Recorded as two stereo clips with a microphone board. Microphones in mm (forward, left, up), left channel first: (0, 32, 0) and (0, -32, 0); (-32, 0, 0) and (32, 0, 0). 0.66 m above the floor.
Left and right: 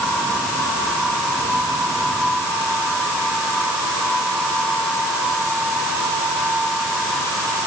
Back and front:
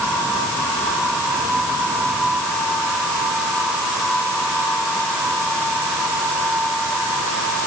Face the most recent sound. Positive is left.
No sound to turn to.